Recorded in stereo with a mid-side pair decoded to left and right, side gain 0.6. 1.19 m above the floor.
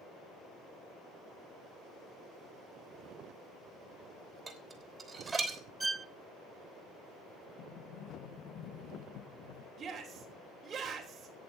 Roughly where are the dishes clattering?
Ahead right.